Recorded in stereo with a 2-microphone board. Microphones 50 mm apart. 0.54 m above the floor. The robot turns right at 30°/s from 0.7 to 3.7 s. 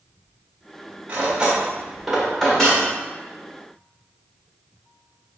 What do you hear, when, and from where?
1.1 s cutlery clinking: 30° right (ahead or behind), 1.0 m; by 2.9 s 20° left (ahead or behind), 1.0 m